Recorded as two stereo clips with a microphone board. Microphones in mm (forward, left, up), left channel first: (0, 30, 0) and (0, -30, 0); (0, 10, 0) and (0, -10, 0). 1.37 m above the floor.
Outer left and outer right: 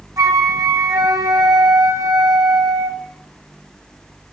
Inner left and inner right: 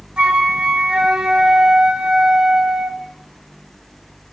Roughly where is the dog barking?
No dog barking in this recording.